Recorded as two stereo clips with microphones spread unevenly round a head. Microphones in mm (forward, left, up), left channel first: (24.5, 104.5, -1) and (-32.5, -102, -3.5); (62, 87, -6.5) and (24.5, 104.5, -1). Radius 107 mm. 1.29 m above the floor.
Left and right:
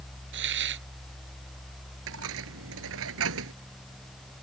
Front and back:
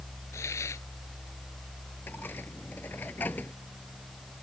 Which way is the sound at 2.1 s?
90° right.